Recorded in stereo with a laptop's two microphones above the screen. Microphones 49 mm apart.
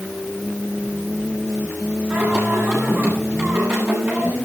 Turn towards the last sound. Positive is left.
turn(degrees=-50)  # may be behind; listen again after turning